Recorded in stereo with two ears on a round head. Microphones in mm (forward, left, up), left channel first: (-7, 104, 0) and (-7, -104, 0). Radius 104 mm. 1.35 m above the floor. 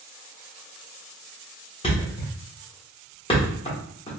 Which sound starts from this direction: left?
A thud, at 1.8 s.